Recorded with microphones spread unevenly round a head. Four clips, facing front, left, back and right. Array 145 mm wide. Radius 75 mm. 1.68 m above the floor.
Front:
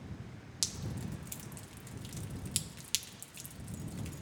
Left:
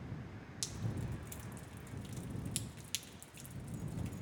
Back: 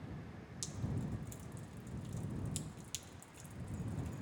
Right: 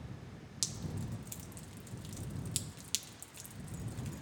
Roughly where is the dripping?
Ahead.